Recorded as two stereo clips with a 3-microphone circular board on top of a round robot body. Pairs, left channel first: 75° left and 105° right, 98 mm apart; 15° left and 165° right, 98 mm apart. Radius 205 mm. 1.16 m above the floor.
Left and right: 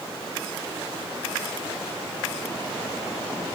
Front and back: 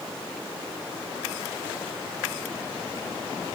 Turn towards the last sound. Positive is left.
No sound to turn to.